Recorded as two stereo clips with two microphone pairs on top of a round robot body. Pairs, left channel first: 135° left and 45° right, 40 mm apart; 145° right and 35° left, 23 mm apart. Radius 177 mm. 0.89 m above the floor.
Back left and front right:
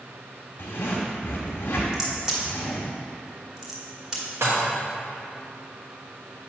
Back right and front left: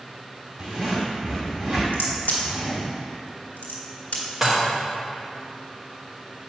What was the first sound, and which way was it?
A zipper, 105° left.